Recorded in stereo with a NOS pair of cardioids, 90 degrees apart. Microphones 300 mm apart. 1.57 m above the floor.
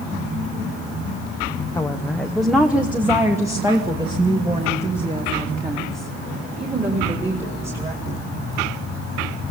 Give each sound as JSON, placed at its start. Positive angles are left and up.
{"t": 1.8, "sound": "a woman speaking", "azimuth_deg": 10, "distance_m": 1.0}